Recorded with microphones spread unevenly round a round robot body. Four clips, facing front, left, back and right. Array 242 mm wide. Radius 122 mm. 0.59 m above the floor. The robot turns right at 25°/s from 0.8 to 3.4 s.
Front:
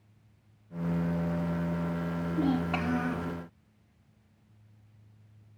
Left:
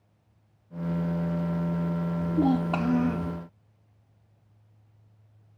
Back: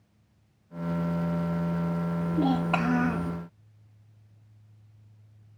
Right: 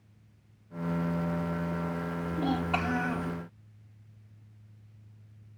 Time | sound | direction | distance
2.2 | a child speaking | 110° left | 1.1 m